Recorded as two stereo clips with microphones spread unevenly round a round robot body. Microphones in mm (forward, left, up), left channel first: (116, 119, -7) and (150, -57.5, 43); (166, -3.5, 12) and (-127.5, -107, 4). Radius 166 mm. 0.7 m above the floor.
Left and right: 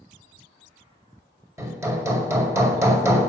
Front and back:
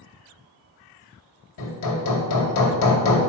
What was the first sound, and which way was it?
Hammering, straight ahead.